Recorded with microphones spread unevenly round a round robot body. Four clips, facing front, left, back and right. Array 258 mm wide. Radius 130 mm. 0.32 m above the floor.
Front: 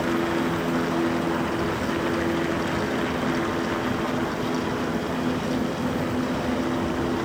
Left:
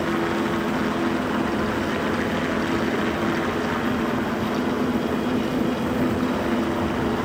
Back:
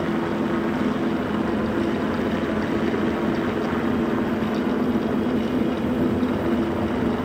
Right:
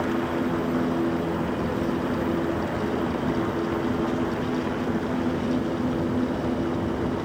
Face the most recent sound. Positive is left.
No sound to turn to.